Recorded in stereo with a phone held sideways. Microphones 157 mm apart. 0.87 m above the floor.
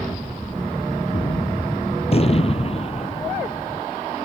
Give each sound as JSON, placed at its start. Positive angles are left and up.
{"t": 1.1, "sound": "a gunshot", "side_deg": 40}